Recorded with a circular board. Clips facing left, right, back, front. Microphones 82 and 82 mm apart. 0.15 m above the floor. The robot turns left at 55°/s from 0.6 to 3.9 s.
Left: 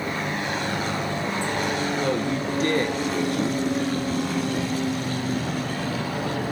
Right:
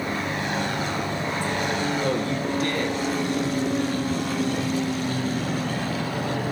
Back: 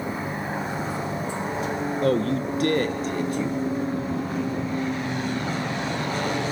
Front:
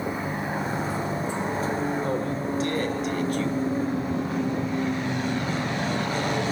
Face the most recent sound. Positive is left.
turn(degrees=85)